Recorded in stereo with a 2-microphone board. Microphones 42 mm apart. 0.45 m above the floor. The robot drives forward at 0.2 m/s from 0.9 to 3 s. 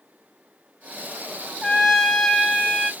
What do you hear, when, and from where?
1.6 s a trumpet: 10° left (ahead or behind), 0.9 m